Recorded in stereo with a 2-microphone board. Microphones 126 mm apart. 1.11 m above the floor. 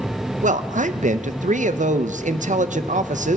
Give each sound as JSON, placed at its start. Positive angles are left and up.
{"t": 0.4, "sound": "a man speaking", "side_deg": -85, "distance_m": 0.5}